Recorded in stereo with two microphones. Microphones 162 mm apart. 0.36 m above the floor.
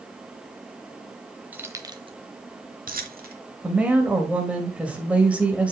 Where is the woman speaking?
5° right (ahead or behind), 1.6 m.